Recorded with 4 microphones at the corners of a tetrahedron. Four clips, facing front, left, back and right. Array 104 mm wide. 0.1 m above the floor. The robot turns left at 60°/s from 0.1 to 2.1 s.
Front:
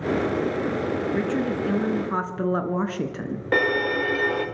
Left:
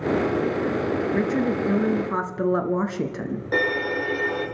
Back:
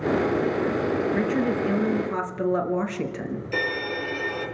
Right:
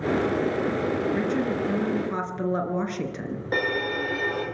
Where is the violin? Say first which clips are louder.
Left 2 dB, front 7 dB; straight ahead, 4 m.